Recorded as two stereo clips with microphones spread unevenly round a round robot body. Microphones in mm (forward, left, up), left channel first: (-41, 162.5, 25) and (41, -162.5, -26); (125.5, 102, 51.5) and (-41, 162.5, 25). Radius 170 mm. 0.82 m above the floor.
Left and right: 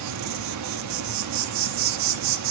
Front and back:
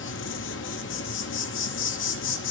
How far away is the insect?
About 0.7 m.